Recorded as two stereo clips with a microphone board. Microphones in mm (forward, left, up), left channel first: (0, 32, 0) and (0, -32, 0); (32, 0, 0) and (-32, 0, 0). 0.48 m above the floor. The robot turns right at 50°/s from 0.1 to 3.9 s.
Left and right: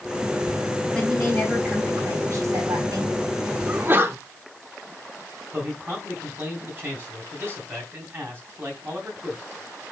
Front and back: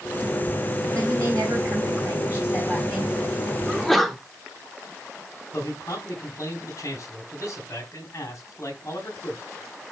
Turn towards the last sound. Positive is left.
turn(degrees=-35)